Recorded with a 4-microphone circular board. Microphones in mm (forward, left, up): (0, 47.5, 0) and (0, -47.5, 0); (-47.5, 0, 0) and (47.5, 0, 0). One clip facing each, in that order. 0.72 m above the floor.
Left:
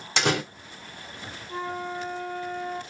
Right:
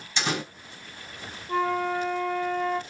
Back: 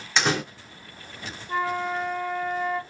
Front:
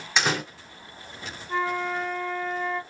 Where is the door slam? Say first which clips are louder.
Left 4 dB, back 1 dB; 90° left, 2 m.